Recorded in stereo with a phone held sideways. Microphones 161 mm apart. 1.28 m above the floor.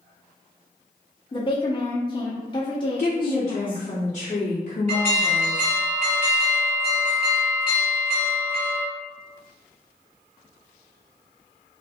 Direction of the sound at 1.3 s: 30° left (ahead or behind).